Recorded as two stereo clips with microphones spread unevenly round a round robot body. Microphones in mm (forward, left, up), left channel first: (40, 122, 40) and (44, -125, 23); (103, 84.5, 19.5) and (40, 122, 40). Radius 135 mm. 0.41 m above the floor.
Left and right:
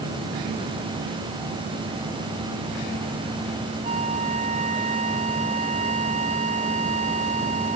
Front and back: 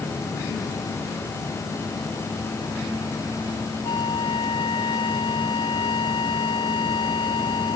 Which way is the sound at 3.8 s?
25° right.